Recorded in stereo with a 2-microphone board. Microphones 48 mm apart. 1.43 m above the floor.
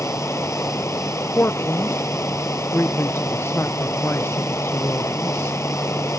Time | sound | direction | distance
0.0 | running water | 75° left (ahead or behind) | ?
1.3 | a man speaking | 60° left (ahead or behind) | ?